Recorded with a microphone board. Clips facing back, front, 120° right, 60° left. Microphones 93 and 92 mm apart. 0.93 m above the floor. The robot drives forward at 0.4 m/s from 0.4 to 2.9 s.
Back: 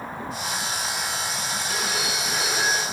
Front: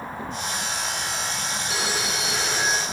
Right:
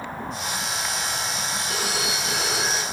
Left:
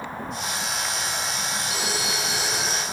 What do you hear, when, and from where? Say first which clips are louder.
1.7 s a phone ringing: front 1 dB, right 1 dB; 85° right, 6.5 m; by 2.8 s 90° right, 6.5 m